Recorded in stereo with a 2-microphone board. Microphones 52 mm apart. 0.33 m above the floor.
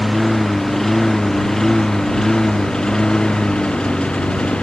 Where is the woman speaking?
No woman speaking in this recording.